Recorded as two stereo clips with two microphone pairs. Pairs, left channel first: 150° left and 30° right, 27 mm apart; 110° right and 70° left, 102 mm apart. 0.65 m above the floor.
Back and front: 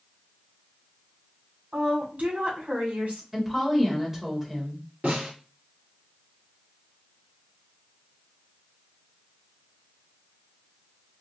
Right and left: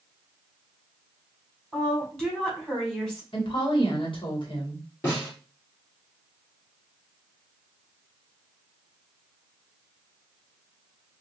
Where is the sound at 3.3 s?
100° right, 1.5 m.